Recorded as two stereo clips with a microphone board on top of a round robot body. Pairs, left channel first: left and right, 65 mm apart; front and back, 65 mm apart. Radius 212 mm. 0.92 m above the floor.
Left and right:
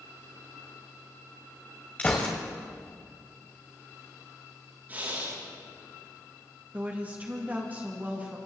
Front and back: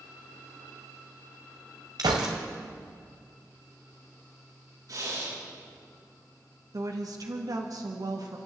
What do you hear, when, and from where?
2.0 s a gunshot: 160° left, 1.5 m
4.9 s breathing: 150° right, 9 m
6.7 s a woman speaking: 155° right, 2 m